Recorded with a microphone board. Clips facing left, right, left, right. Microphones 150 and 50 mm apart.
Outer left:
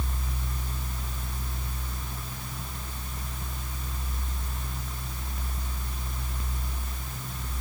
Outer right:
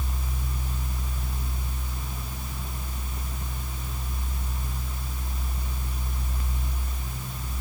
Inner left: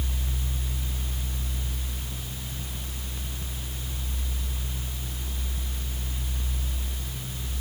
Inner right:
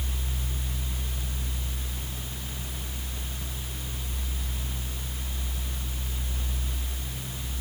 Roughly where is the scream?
No scream in this recording.